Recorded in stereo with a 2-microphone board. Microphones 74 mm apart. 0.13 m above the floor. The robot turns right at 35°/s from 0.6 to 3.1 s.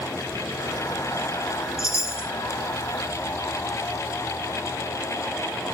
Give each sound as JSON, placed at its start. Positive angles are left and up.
{"t": 1.8, "sound": "a chime", "side_deg": 45, "distance_m": 1.6}